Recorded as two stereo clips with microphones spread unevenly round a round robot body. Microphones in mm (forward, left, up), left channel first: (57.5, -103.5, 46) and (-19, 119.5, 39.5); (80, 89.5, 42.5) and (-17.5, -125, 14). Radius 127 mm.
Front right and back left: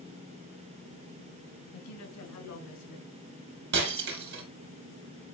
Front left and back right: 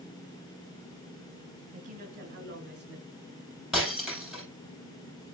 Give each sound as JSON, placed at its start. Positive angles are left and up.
{"t": 1.7, "sound": "a woman speaking", "azimuth_deg": -60, "distance_m": 5.0}
{"t": 3.7, "sound": "breaking glass", "azimuth_deg": 155, "distance_m": 3.0}